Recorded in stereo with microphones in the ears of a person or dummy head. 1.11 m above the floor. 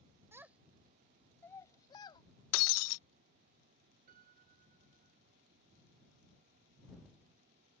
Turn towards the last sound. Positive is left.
turn(degrees=-45)  # may be behind; listen again after turning